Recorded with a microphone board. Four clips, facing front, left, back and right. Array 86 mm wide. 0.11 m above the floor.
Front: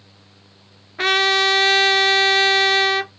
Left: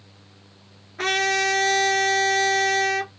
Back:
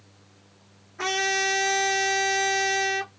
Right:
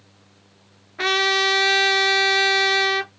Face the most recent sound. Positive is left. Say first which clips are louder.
# right 2 dB, front 7 dB
turn(degrees=-15)